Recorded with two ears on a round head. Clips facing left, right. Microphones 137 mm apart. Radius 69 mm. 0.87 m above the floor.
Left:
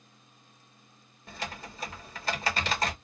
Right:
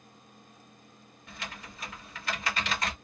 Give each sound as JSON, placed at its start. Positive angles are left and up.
{"t": 1.3, "sound": "typing on a keyboard", "side_deg": 30, "distance_m": 1.0}